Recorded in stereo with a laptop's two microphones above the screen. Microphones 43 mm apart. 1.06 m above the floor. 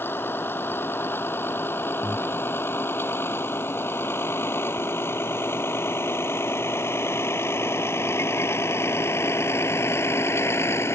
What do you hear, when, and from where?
0.0 s a vehicle: 55° left (ahead or behind); by 10.9 s 85° left
2.0 s breathing: 15° right (ahead or behind)